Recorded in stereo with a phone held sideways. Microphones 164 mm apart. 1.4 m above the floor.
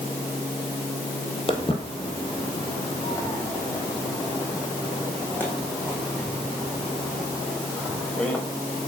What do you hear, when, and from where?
1.5 s footsteps: 35° left (ahead or behind), 2.5 m; by 8.4 s 5° left (ahead or behind), 8 m